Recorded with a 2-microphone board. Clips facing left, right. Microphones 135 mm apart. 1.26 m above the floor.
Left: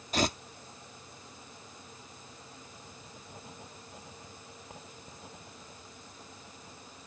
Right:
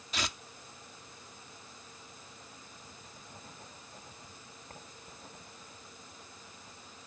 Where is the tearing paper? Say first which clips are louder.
Left 9 dB; 45° left (ahead or behind).